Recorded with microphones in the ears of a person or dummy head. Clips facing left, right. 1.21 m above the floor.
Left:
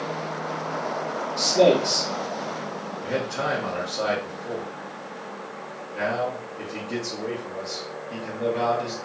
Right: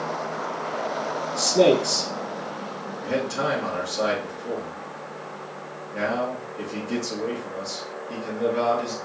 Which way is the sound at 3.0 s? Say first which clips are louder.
Right 2 dB; 70° right (ahead or behind).